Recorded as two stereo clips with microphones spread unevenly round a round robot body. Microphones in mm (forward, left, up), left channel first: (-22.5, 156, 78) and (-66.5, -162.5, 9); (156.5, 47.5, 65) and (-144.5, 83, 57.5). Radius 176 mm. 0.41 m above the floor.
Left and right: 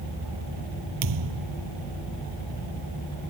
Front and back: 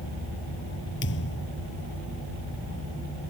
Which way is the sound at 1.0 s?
65° right.